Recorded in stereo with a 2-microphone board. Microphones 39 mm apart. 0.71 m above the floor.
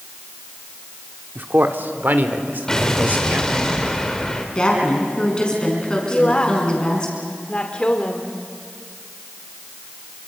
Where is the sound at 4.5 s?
25° left (ahead or behind), 6 m.